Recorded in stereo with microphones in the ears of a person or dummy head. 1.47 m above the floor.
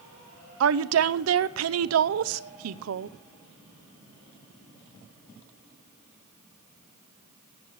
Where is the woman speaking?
70° right (ahead or behind), 0.7 m.